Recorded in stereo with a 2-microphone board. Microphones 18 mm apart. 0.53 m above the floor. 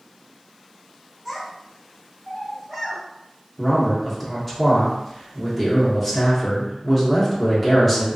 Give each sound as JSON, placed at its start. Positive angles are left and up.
{"t": 1.2, "sound": "a child speaking", "side_deg": 5, "distance_m": 1.1}
{"t": 3.6, "sound": "a man speaking", "side_deg": 10, "distance_m": 1.1}